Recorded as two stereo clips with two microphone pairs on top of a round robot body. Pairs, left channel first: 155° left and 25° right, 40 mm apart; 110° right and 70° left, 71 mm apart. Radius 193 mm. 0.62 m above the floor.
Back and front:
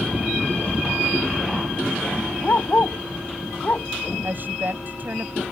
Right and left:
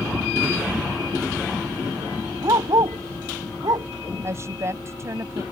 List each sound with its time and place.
2.4 s a dog barking: 100° left
4.2 s a woman speaking: 20° left